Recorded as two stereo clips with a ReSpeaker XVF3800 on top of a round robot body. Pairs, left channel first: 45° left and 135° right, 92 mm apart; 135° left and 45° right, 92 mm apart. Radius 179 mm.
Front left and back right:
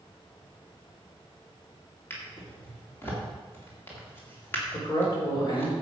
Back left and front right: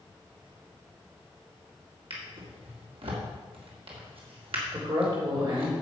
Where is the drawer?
20° right, 2 m.